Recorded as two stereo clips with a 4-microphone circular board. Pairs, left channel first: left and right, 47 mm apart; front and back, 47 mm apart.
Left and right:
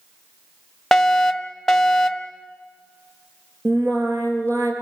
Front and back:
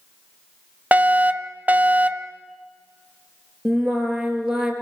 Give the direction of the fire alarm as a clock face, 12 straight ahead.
6 o'clock.